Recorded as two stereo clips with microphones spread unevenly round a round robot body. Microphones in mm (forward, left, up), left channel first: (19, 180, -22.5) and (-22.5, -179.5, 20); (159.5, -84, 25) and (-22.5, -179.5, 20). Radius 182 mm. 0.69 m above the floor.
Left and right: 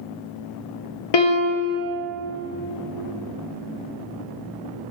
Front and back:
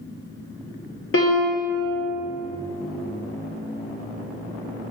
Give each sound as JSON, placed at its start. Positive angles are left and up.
{"t": 1.1, "sound": "a piano", "azimuth_deg": 65, "distance_m": 0.5}